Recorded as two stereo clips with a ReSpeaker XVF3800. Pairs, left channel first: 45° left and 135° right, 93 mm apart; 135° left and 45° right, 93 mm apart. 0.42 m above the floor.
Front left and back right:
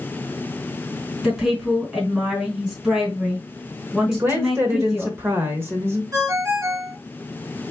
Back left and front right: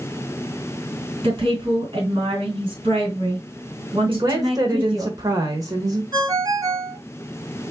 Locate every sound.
1.2 s a woman speaking: 55° right, 2.5 m
4.1 s a woman speaking: 80° right, 1.2 m
6.1 s a ringtone: 85° right, 1.8 m